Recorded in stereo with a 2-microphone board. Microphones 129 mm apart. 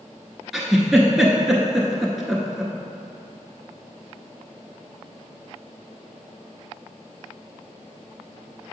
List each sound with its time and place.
0.5 s a giggle: centre (ahead or behind), 0.9 m